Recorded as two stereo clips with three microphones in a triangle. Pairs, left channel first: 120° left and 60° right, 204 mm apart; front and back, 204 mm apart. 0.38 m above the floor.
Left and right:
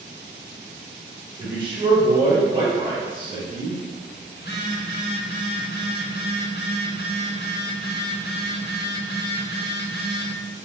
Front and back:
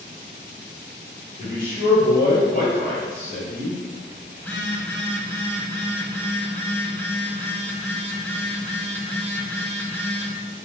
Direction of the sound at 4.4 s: 80° left.